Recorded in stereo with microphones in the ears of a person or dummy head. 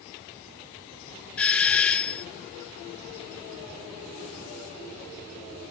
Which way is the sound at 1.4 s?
5° left (ahead or behind).